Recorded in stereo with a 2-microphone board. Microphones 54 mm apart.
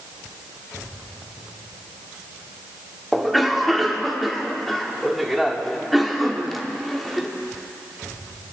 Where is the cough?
Centre (ahead or behind), 1.1 m.